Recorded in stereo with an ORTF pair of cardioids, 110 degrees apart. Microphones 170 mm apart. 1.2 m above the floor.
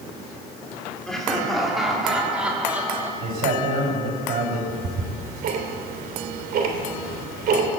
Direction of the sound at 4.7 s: 60° right.